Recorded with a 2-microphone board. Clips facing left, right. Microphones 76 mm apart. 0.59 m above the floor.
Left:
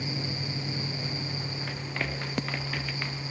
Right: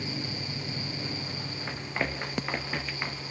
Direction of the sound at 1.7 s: 20° right (ahead or behind).